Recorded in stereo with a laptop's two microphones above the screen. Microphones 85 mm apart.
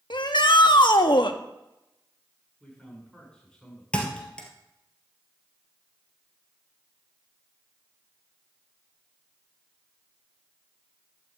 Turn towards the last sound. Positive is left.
turn(degrees=10)  # may be behind; listen again after turning